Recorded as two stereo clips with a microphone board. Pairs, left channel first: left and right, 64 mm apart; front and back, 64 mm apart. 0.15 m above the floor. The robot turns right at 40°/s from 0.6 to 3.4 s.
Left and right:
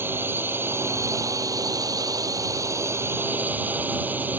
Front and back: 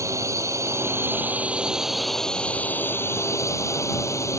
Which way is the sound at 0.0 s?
145° right.